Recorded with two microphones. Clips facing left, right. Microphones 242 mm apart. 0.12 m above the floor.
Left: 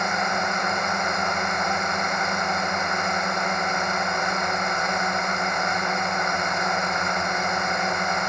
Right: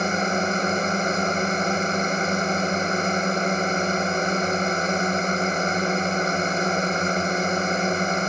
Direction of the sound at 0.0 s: 35° right (ahead or behind).